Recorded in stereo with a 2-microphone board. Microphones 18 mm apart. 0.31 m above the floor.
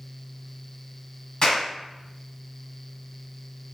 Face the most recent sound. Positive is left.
turn(degrees=45)  # may be behind; listen again after turning